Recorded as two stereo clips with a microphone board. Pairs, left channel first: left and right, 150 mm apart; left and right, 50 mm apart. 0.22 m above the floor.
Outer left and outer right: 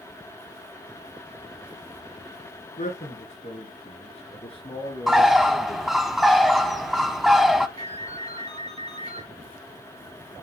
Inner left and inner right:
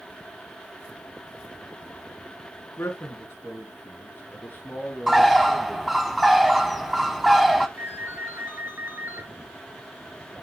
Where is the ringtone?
45° right (ahead or behind), 1.7 m.